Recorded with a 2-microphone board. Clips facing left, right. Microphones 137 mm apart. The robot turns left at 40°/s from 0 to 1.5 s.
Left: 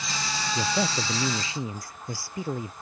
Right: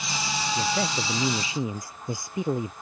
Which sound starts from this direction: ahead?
A man speaking, at 0.6 s.